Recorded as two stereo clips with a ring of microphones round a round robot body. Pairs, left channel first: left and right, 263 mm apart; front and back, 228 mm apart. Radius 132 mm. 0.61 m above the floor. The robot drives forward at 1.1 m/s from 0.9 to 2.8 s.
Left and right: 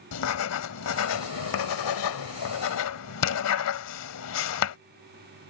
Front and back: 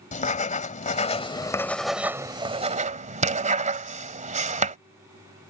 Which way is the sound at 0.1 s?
60° left.